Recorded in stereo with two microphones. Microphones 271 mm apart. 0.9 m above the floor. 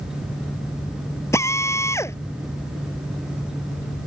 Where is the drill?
10° left (ahead or behind).